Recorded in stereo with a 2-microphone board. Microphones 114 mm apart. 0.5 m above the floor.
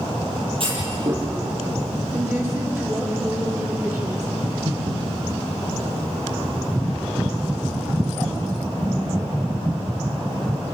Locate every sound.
0.6 s a clunk: 50° right (ahead or behind), 8.5 m
2.1 s a woman speaking: 25° right (ahead or behind), 7 m
4.4 s breathing: 55° right (ahead or behind), 5.5 m